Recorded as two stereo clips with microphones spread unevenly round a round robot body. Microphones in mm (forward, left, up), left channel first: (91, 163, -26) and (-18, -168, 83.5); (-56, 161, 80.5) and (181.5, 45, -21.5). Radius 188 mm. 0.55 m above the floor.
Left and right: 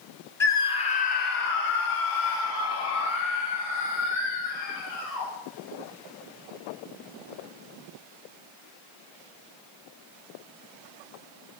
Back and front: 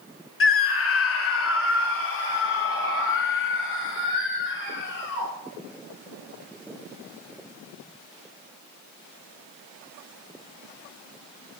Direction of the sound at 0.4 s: 115° left.